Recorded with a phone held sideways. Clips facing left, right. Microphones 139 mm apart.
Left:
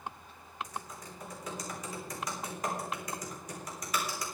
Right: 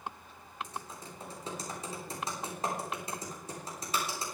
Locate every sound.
0.6 s typing on a keyboard: 30° right (ahead or behind), 3.5 m